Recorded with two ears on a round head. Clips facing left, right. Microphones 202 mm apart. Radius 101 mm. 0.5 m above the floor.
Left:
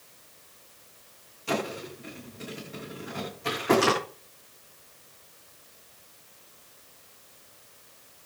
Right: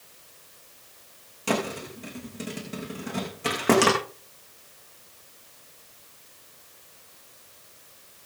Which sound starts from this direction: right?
A thud, at 1.5 s.